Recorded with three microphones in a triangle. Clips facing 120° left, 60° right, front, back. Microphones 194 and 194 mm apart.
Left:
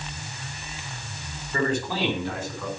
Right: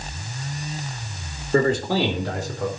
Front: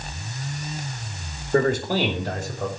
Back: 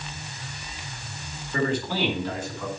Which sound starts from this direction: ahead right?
A man speaking, at 1.5 s.